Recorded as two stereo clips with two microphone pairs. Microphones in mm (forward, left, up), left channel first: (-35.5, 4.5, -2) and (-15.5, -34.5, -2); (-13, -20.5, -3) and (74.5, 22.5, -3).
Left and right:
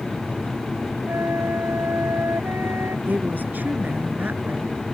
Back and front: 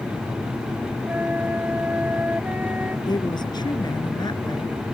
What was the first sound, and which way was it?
A flute, 45° right.